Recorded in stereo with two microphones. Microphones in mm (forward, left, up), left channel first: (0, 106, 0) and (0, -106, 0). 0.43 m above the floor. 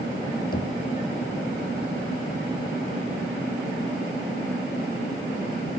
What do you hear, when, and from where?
0.5 s knocking: 45° left (ahead or behind)